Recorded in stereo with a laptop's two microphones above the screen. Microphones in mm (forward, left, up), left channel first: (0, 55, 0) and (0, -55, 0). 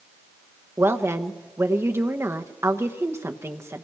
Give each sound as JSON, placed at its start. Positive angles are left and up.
{"t": 0.8, "sound": "a woman speaking", "side_deg": -25, "distance_m": 1.0}